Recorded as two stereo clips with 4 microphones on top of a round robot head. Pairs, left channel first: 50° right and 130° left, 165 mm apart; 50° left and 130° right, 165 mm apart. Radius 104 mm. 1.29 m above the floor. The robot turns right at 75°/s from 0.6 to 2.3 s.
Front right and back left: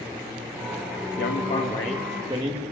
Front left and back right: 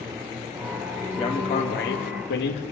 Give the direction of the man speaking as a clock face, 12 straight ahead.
1 o'clock.